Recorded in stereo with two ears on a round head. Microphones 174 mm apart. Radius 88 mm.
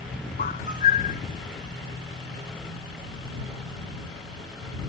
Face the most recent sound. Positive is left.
turn(degrees=45)  # may be behind; listen again after turning